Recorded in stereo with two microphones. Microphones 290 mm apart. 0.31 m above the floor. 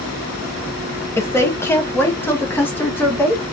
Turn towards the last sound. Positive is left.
turn(degrees=5)  # may be behind; listen again after turning